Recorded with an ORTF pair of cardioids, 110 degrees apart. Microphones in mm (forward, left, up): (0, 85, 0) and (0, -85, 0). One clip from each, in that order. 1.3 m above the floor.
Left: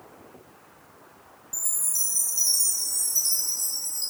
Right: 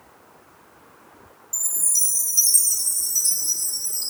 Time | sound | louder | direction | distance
1.5 | a chime | right 5 dB | 20° right | 3 m